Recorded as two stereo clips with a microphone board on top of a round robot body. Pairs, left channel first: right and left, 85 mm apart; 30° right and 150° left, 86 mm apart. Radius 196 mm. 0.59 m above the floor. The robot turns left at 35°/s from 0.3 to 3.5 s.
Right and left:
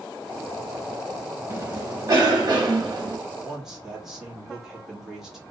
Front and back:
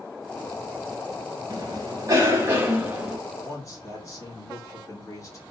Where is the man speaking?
10° left, 1.5 m; by 5.4 s 5° left, 1.5 m.